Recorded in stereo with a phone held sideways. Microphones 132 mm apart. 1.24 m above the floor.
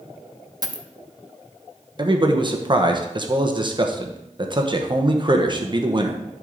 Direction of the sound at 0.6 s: 30° right (ahead or behind).